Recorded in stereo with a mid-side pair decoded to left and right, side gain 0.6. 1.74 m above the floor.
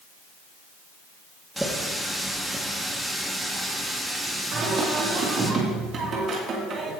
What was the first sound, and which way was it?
A running tap, 10° right.